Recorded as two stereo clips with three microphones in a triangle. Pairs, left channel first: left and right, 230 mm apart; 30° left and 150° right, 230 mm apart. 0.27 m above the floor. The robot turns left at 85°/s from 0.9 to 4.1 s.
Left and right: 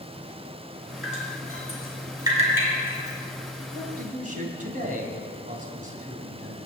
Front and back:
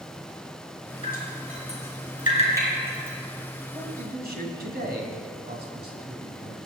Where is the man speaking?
95° right, 2.5 m; by 6.6 s 130° right, 2.5 m.